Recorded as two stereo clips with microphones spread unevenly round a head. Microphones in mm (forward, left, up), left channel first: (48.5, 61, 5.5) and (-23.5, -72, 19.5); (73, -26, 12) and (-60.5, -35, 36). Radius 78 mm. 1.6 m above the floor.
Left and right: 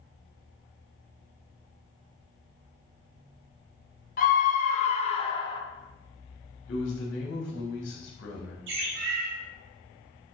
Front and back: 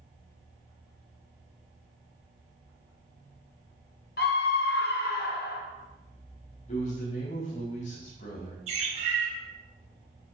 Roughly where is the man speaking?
Ahead left.